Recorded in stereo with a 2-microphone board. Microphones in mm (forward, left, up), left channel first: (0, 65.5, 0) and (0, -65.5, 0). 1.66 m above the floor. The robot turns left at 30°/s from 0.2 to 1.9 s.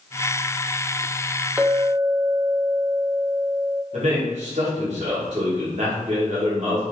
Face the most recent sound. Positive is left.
turn(degrees=-60)  # may be behind; listen again after turning